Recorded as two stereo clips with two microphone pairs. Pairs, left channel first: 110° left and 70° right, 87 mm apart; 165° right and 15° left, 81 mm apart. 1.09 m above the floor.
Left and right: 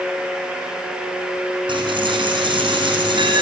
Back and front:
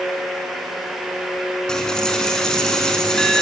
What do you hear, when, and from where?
1.7 s a dropped coin: 85° right, 5.5 m